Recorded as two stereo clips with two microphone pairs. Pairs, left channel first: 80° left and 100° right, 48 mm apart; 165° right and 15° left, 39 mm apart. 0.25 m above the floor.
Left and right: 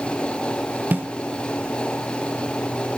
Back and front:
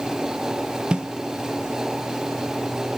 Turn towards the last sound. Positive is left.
turn(degrees=-50)